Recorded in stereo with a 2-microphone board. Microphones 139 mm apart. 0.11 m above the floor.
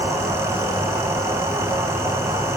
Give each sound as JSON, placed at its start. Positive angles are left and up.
{"t": 0.0, "sound": "an insect", "side_deg": -15, "distance_m": 2.5}